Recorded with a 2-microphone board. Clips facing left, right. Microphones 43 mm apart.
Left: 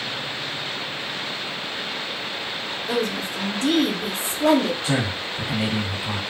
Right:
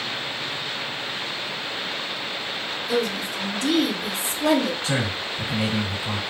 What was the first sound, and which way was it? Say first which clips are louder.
A woman speaking: even; 35° left (ahead or behind).